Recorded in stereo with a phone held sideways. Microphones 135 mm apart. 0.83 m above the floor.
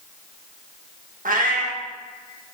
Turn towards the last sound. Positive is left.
turn(degrees=-85)